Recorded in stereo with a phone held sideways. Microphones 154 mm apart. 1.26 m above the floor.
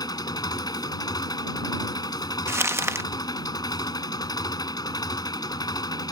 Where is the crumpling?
20° right (ahead or behind).